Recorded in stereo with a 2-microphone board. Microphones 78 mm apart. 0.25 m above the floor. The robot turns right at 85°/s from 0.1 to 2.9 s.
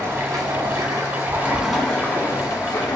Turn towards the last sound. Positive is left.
turn(degrees=95)